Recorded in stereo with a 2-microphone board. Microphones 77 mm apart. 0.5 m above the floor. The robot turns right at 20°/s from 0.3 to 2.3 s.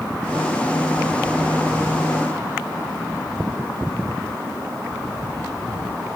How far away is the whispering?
No whispering in this recording.